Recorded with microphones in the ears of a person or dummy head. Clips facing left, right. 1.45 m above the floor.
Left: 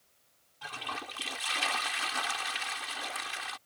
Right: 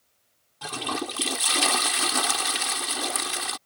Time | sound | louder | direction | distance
0.6 | a toilet flushing | right 12 dB | 60° right (ahead or behind) | ?